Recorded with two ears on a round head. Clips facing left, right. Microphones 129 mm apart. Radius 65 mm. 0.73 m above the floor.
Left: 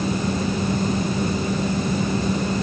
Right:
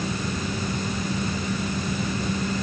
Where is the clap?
I don't hear a clap.